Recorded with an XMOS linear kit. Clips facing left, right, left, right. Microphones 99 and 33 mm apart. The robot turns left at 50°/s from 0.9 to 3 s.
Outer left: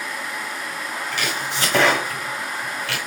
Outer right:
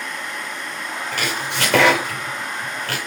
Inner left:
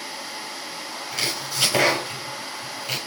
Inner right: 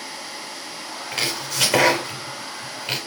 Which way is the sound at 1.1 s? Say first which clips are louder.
Outer right 2 dB, inner right 2 dB; 45° right (ahead or behind).